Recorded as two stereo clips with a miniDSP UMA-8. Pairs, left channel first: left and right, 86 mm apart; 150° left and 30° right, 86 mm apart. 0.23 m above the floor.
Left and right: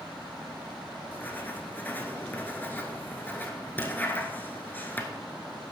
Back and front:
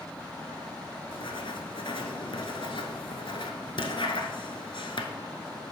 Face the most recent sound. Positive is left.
turn(degrees=160)